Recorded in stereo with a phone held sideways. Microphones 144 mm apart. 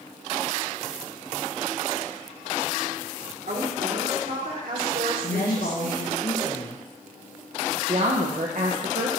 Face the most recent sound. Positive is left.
turn(degrees=-55)  # may be behind; listen again after turning